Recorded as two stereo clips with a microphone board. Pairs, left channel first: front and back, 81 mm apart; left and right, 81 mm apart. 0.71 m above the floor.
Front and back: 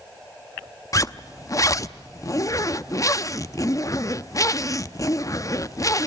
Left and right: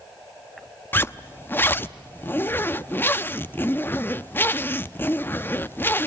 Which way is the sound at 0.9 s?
35° left.